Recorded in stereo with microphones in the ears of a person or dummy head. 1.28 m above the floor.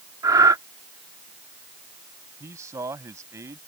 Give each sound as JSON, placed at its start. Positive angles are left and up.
{"t": 0.2, "sound": "breathing", "side_deg": -15}
{"t": 2.4, "sound": "a man speaking", "side_deg": -10}